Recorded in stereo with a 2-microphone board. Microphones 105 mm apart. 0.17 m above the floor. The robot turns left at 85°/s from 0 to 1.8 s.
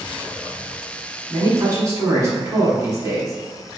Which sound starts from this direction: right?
A man speaking, at 1.3 s.